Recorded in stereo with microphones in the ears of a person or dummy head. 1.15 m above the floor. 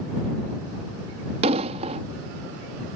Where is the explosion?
35° right (ahead or behind).